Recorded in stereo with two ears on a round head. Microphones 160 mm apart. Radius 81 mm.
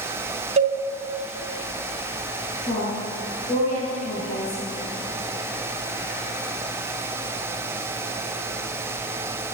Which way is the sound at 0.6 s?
40° right (ahead or behind).